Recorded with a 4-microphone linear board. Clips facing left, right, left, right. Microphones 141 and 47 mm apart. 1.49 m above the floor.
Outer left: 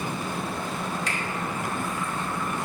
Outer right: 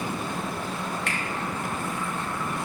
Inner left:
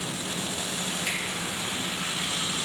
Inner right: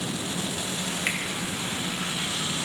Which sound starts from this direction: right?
A finger snap, at 1.1 s.